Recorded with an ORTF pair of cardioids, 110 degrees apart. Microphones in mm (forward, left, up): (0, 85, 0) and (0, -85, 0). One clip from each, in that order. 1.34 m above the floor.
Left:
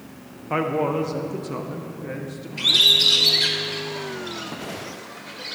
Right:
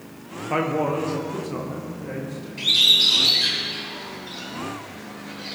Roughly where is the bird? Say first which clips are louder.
Left 1 dB; ahead left.